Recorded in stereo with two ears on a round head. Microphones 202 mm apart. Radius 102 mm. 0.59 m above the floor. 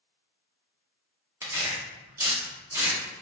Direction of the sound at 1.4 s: 10° right (ahead or behind).